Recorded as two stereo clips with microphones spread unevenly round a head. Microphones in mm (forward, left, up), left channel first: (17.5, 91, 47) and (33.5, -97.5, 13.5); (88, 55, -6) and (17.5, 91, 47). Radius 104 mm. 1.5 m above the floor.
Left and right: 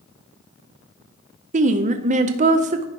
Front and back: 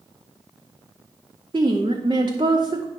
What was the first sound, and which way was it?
A woman speaking, 135° right.